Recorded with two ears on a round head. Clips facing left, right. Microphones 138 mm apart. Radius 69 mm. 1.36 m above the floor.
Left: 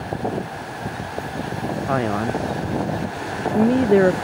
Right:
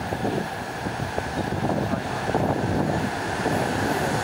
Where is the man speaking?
75° left (ahead or behind).